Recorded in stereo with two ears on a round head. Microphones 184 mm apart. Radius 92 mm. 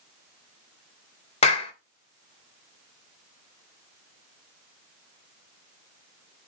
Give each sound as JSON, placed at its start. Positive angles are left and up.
{"t": 1.4, "sound": "a clap", "side_deg": 30, "distance_m": 2.0}